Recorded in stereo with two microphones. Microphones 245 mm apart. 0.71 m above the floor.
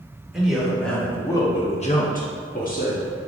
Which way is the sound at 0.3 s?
5° right (ahead or behind).